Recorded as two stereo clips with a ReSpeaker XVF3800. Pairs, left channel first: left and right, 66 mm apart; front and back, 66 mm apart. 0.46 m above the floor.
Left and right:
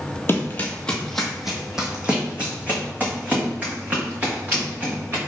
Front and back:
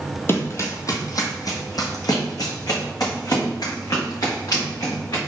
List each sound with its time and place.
0.3 s running footsteps: 45° left, 0.7 m; by 5.2 s 30° right, 3 m